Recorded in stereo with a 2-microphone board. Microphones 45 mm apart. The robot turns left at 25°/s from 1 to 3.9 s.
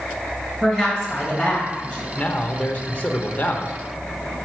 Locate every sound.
0.6 s a woman speaking: 15° right (ahead or behind), 2.5 m; by 2.1 s 10° left (ahead or behind), 2.5 m
2.2 s a man speaking: 125° left, 0.9 m; by 3.7 s 85° left, 0.9 m